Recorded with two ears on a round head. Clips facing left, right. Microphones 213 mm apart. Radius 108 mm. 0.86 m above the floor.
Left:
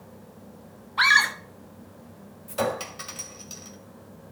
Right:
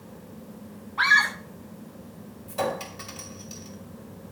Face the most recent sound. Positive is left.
turn(degrees=15)  # may be behind; listen again after turning